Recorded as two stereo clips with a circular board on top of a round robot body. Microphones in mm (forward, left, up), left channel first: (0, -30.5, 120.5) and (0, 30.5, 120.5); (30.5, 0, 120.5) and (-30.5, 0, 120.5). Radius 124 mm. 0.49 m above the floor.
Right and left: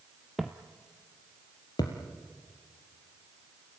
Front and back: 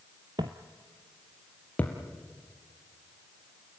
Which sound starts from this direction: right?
A thud, at 1.8 s.